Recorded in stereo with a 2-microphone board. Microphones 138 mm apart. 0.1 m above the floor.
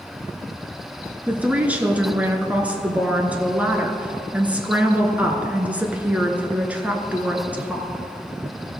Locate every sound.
1.3 s a woman speaking: 10° right (ahead or behind), 1.1 m